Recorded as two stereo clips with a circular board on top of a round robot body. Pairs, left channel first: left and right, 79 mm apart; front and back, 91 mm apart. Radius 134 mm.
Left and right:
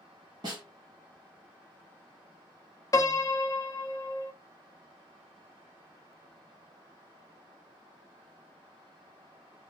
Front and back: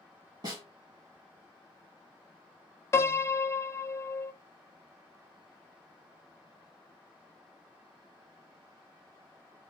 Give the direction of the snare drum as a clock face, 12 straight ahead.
4 o'clock.